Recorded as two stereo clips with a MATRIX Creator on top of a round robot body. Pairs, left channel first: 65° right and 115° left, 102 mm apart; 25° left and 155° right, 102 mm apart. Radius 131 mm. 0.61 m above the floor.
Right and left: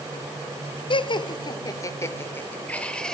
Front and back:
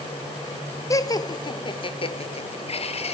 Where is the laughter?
35° right, 1.9 m; by 3.1 s 15° left, 2.5 m.